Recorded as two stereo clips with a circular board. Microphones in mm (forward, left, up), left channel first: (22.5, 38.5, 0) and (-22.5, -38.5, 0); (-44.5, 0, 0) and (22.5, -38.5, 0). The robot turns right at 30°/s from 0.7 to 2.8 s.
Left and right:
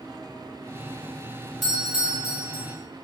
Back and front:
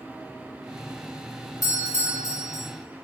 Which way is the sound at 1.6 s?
150° left.